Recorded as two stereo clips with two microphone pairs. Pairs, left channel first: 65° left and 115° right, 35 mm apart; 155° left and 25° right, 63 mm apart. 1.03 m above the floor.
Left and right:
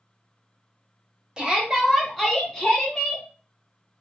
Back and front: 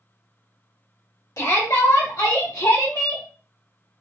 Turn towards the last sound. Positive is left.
turn(degrees=125)